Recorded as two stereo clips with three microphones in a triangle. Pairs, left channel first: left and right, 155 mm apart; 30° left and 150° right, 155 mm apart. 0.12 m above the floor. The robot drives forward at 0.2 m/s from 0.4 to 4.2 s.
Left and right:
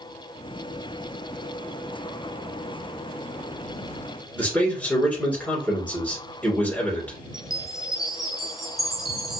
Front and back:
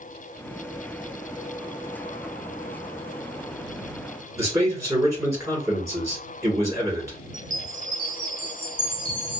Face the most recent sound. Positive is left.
turn(degrees=-175)